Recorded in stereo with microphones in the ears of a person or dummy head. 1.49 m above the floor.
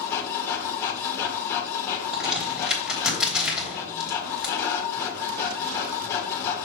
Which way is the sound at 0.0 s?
20° left (ahead or behind).